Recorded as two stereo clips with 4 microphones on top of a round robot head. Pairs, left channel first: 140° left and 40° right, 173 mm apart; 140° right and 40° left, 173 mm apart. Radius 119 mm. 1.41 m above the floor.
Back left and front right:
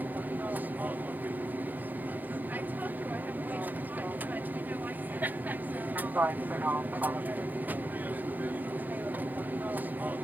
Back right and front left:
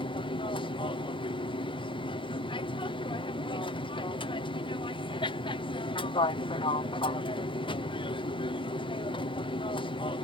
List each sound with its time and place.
0.0 s an aircraft: 110° right